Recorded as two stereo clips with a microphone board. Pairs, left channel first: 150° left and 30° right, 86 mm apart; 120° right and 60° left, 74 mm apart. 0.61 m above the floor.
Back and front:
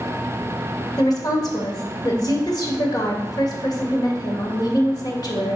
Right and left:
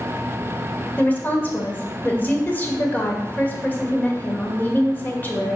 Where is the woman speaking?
Straight behind, 2.0 m.